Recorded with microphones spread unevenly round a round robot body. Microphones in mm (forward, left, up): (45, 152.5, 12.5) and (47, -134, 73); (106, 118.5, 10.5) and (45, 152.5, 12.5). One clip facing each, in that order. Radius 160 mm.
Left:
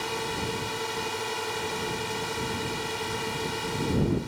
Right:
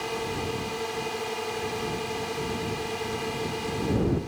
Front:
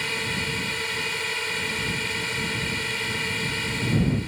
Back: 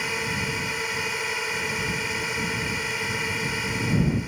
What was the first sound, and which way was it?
A drone, 80° left.